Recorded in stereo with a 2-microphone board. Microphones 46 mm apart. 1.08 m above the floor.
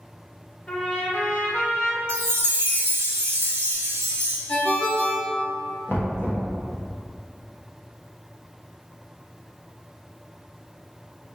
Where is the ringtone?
45° left (ahead or behind), 1.2 m.